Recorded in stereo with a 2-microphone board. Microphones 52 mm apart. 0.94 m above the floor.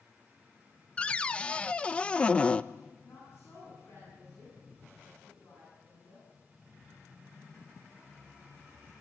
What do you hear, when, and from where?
1.0 s a cupboard door: 20° left (ahead or behind), 0.5 m
3.0 s a woman speaking: 50° left (ahead or behind), 9.5 m